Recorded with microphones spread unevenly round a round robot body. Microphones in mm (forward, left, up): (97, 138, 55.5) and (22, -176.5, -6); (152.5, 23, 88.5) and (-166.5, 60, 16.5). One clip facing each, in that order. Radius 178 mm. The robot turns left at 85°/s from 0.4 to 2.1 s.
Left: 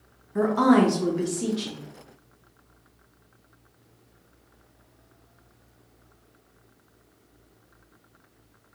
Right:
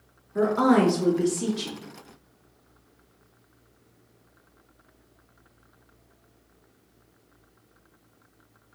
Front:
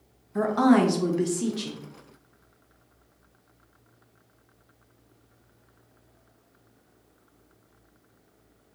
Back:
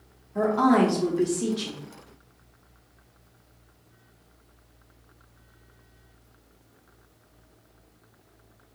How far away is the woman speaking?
About 0.6 m.